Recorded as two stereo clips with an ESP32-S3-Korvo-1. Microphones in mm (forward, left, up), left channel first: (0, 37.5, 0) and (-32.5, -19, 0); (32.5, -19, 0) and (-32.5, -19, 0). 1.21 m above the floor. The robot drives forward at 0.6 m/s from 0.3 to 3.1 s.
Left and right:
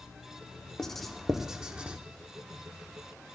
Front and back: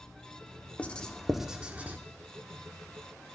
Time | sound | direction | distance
0.8 | writing | 10° right | 0.8 m